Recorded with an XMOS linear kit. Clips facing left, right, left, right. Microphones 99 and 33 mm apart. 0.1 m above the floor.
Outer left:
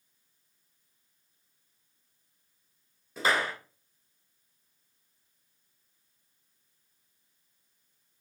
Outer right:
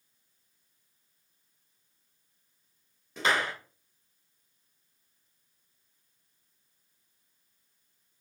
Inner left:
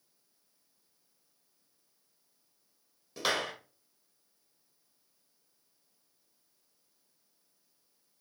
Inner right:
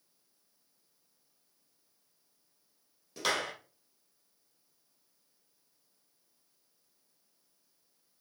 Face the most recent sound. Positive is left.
turn(degrees=5)  # may be behind; listen again after turning